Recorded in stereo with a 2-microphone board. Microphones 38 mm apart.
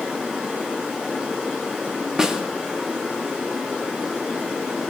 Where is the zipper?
No zipper in this recording.